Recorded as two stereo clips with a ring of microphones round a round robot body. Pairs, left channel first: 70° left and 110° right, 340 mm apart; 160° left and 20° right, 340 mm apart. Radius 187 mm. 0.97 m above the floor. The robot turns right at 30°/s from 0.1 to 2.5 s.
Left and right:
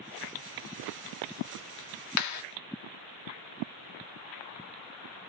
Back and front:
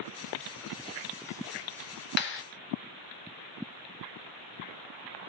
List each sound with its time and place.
2.2 s a clap: 100° left, 0.8 m; by 2.4 s 105° left, 0.8 m